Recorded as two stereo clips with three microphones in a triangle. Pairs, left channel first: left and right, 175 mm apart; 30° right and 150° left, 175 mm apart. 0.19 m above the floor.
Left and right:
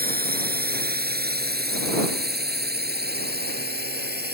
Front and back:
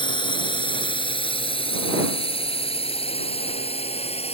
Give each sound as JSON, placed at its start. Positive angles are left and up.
{"t": 0.0, "sound": "a drone", "azimuth_deg": -90}